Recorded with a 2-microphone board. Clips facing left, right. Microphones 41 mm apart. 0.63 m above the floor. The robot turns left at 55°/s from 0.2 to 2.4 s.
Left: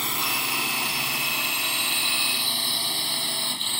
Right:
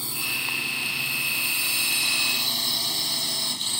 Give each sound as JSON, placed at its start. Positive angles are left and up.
{"t": 0.0, "sound": "a drone", "side_deg": 60}